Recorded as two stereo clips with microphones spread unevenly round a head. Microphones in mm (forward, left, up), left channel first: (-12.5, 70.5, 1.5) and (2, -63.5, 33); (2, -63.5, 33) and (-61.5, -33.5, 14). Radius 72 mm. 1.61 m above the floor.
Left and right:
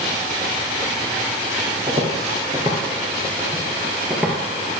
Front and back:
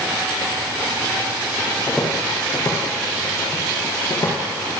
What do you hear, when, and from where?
1.9 s footsteps: 75° right, 2 m; by 4.4 s 15° right, 2.5 m